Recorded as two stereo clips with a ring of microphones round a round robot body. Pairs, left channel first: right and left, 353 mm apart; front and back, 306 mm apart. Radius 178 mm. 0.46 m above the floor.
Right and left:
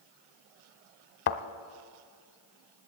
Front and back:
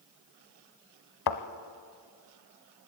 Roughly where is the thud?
Ahead right.